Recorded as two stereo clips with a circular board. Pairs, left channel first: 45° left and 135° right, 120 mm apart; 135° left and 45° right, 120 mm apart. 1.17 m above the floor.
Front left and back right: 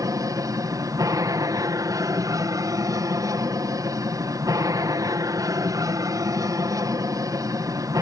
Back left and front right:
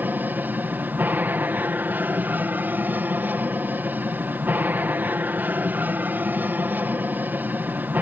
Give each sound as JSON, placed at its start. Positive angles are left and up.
{"t": 0.0, "sound": "an aircraft", "azimuth_deg": -110}